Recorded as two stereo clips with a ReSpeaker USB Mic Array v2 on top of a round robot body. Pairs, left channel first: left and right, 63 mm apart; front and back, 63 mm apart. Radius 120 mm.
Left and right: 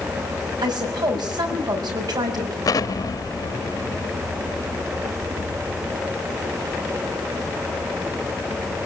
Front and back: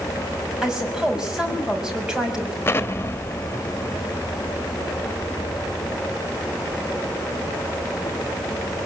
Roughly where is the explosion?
Ahead left.